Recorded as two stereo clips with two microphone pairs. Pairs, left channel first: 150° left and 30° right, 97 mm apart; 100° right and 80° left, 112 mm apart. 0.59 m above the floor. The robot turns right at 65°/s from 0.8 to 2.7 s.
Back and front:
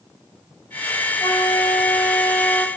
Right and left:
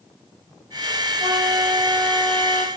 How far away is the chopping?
No chopping in this recording.